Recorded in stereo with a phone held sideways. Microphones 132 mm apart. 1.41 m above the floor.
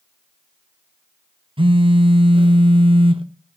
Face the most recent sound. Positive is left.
turn(degrees=-45)  # may be behind; listen again after turning